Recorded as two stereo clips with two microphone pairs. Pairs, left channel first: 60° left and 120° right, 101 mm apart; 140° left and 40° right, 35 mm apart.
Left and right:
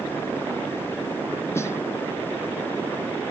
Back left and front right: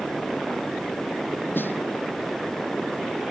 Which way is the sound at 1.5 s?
125° left.